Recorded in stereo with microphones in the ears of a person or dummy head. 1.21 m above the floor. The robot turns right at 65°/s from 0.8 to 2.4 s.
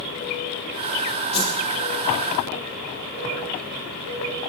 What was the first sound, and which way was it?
A whoosh, 35° left (ahead or behind).